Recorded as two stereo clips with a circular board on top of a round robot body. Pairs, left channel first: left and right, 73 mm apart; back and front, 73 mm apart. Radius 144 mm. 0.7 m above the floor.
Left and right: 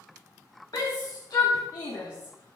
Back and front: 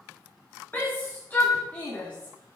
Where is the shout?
115° left, 1.6 m; by 2.6 s 110° left, 2.5 m.